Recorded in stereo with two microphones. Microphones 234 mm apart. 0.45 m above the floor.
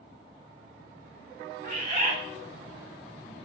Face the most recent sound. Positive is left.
turn(degrees=-40)  # may be behind; listen again after turning